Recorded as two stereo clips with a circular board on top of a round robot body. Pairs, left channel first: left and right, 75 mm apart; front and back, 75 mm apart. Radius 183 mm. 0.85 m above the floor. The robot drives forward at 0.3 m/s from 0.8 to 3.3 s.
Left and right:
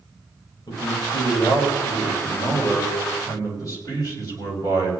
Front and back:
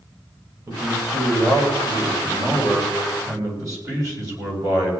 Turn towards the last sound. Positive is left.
turn(degrees=135)